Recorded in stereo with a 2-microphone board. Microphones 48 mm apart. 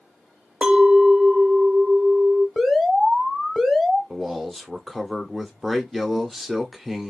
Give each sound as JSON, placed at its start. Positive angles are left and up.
{"t": 0.6, "sound": "a clink", "side_deg": -20, "distance_m": 0.7}
{"t": 2.6, "sound": "an alarm", "side_deg": 0, "distance_m": 1.4}
{"t": 4.1, "sound": "a man speaking", "side_deg": -5, "distance_m": 0.8}